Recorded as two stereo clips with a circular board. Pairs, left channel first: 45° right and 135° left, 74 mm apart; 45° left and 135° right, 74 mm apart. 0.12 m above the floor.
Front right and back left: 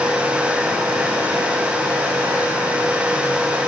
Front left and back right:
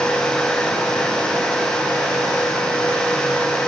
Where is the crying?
I don't hear crying.